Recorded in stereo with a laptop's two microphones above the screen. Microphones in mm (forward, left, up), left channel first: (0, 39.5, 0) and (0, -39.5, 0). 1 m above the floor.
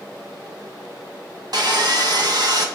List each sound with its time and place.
1.5 s sawing: 55° right (ahead or behind), 1.0 m